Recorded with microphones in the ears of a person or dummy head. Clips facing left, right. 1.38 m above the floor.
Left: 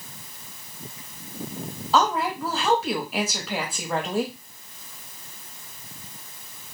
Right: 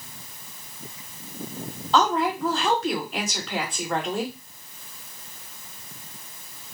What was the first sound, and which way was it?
A woman speaking, 5° left (ahead or behind).